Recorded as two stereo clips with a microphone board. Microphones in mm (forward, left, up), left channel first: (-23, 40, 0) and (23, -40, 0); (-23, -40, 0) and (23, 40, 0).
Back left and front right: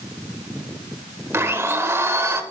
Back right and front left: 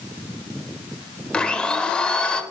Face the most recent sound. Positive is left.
turn(degrees=-55)